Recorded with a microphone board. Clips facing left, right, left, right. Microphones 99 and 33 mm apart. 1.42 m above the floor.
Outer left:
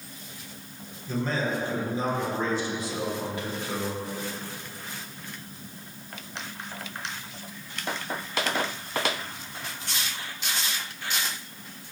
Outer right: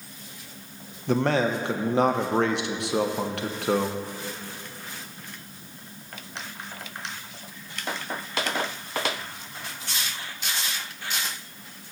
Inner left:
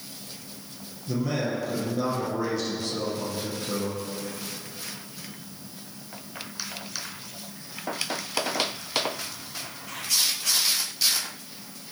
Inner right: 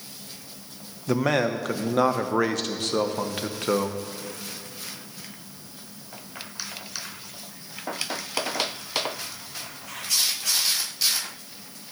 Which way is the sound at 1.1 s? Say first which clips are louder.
Outer right 6 dB, inner right 5 dB; 65° right (ahead or behind).